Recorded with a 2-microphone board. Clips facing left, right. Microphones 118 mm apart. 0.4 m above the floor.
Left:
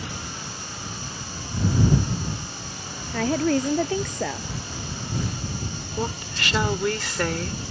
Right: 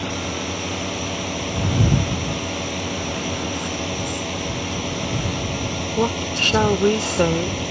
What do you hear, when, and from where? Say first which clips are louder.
0.0 s a drone: right 10 dB; 70° right (ahead or behind)
3.1 s a woman speaking: left 4 dB; 80° left
6.0 s a woman speaking: right 8 dB; 30° right (ahead or behind)